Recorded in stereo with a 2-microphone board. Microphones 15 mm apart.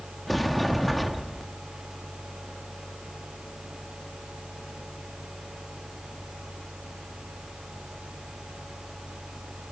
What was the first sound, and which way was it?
A sliding door, 10° left (ahead or behind).